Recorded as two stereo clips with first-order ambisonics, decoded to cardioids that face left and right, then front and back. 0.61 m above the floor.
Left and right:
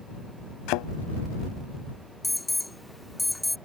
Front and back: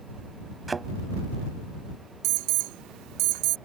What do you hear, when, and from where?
0.7 s a thud: 105° left
2.2 s an alarm: straight behind